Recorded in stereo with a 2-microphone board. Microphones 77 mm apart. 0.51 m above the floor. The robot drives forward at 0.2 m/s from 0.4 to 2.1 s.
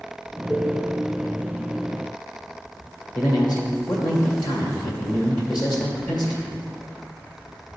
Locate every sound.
0.5 s a cowbell: 5° left (ahead or behind), 0.5 m
3.1 s a man speaking: 65° left (ahead or behind), 1.6 m